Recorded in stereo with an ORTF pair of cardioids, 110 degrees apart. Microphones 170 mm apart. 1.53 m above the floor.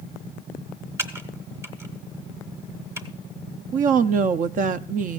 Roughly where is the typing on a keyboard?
Ahead.